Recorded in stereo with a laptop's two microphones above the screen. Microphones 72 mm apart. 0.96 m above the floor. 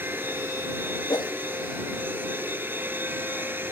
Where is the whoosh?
70° left (ahead or behind).